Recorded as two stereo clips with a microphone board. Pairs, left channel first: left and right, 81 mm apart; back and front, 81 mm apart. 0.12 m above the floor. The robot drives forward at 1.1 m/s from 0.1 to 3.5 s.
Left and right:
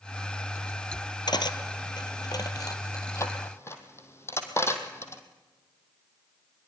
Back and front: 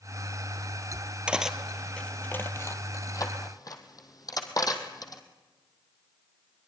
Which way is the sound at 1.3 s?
75° left.